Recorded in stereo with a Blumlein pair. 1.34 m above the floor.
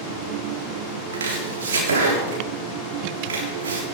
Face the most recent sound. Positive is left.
turn(degrees=-60)